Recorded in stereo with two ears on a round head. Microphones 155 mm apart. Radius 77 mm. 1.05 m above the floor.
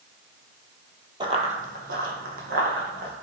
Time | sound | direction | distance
1.2 | running footsteps | 25° right (ahead or behind) | 1.2 m